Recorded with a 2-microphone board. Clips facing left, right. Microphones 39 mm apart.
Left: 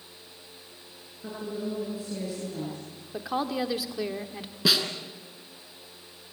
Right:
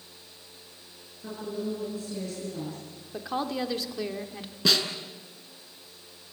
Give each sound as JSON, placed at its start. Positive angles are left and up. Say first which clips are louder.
{"t": 1.2, "sound": "a woman speaking", "louder": "even", "side_deg": 10, "distance_m": 8.0}
{"t": 3.1, "sound": "a woman speaking", "louder": "left 1 dB", "side_deg": 5, "distance_m": 1.4}
{"t": 4.7, "sound": "a snare drum", "louder": "even", "side_deg": 5, "distance_m": 2.5}